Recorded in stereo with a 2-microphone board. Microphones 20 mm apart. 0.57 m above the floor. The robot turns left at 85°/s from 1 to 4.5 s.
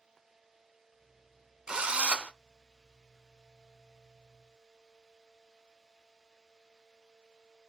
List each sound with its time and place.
1.7 s a drill: 45° right, 0.6 m; by 2.3 s 100° right, 0.6 m